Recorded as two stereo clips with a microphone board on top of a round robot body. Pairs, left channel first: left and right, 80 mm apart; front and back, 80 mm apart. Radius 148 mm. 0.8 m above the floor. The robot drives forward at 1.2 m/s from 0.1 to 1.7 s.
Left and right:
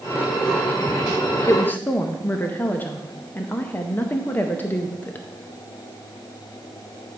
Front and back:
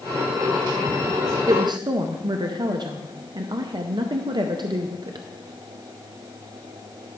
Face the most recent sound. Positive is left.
turn(degrees=155)